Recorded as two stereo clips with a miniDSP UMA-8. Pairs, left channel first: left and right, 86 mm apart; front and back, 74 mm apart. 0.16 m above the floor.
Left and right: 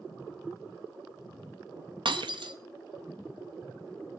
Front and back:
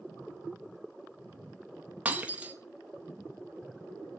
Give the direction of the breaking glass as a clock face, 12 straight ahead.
4 o'clock.